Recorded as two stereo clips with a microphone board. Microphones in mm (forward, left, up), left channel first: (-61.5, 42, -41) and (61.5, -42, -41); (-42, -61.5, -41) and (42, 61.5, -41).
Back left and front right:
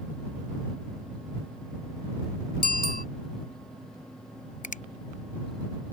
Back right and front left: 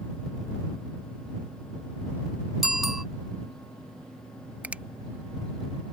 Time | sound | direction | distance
2.6 | a bicycle bell | 145° left | ?
4.6 | a finger snap | 135° left | ?